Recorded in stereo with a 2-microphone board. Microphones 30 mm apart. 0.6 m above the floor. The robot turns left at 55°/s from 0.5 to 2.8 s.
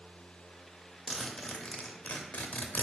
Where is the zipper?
175° left, 0.5 m; by 2.8 s 80° left, 0.5 m.